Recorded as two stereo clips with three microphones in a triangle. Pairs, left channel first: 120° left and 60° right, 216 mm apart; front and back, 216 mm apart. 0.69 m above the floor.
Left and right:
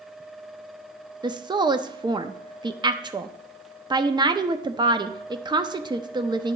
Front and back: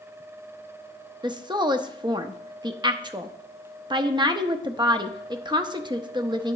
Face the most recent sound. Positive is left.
turn(degrees=-125)